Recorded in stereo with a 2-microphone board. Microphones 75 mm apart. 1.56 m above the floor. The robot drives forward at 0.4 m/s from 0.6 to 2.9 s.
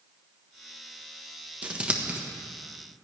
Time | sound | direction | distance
1.6 | scissors | 20° right (ahead or behind) | 1.2 m